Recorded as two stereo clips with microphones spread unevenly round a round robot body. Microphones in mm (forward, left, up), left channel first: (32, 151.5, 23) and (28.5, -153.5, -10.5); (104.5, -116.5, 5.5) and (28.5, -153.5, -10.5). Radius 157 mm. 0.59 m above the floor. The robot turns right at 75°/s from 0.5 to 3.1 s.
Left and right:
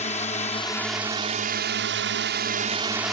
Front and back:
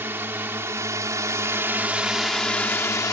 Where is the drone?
155° left; by 3.1 s 10° right.